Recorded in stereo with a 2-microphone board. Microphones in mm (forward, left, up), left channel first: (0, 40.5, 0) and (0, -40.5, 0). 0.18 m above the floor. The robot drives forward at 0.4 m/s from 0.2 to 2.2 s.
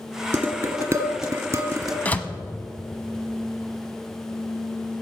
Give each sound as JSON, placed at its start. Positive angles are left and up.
{"t": 0.3, "sound": "dishes clattering", "side_deg": -25, "distance_m": 2.0}
{"t": 2.0, "sound": "a door slam", "side_deg": 20, "distance_m": 0.8}